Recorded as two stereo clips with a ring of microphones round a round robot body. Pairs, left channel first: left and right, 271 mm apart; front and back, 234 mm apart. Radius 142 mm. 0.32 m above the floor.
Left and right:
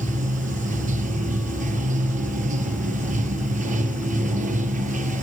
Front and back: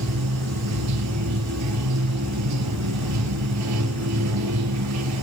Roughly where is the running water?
Behind right.